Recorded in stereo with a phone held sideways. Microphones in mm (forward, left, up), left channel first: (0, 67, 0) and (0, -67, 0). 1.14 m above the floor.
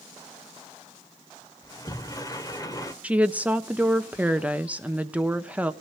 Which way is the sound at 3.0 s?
10° right (ahead or behind).